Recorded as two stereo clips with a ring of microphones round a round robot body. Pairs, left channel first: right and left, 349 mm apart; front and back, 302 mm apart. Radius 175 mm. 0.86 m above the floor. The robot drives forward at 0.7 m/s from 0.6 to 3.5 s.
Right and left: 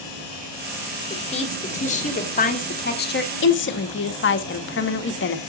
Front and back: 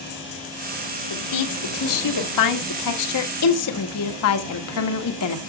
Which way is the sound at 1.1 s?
15° right.